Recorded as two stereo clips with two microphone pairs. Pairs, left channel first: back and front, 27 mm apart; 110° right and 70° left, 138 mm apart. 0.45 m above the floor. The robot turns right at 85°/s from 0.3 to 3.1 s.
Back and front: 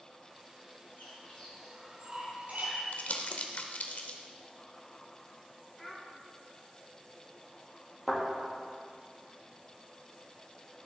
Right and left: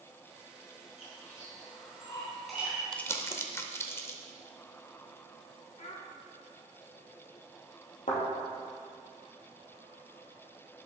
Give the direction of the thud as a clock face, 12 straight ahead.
3 o'clock.